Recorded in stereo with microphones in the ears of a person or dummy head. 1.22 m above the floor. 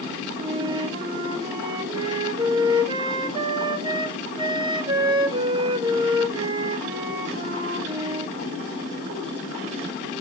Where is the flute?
30° right (ahead or behind), 1.6 m.